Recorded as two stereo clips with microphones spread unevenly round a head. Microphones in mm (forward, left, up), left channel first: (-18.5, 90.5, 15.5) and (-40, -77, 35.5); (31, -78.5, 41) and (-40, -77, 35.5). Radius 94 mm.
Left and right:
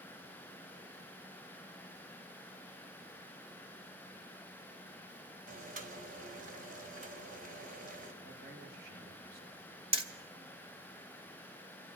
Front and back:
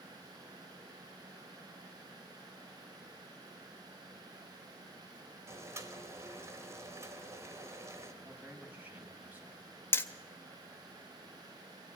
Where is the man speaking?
120° right, 8 m.